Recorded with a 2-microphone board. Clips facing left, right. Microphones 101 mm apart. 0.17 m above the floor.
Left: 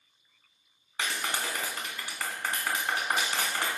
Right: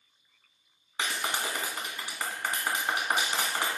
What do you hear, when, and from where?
1.0 s a clap: 20° right (ahead or behind), 1.4 m